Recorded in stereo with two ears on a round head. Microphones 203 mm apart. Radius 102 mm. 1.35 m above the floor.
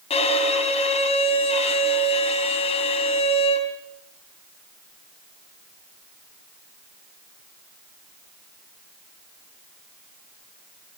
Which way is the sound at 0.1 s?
30° left (ahead or behind).